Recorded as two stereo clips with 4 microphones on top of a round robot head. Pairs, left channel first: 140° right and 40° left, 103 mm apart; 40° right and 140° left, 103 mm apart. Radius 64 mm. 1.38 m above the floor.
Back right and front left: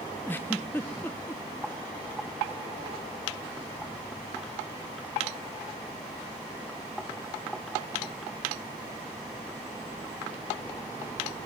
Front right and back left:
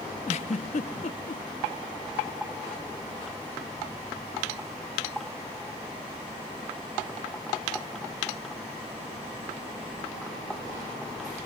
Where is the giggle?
65° right, 0.5 m.